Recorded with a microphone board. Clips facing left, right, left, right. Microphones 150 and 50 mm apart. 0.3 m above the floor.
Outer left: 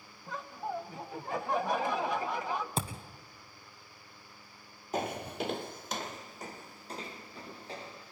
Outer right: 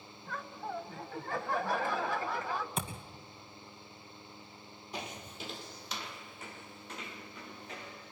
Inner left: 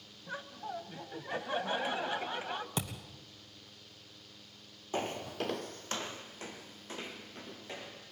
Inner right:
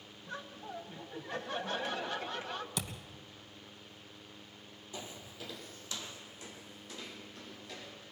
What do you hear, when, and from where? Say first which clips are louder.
0.3 s laughter: outer left 2 dB, inner left 3 dB; 20° left (ahead or behind), 1.6 m
2.8 s a thud: outer left 3 dB, inner left 3 dB; 35° left (ahead or behind), 2 m
4.9 s footsteps: outer left 10 dB, inner left 11 dB; 50° left (ahead or behind), 0.5 m; by 8.1 s 30° left (ahead or behind), 3 m